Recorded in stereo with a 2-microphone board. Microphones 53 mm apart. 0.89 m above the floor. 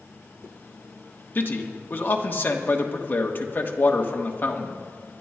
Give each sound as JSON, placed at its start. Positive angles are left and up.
{"t": 1.4, "sound": "a man speaking", "side_deg": 40, "distance_m": 1.2}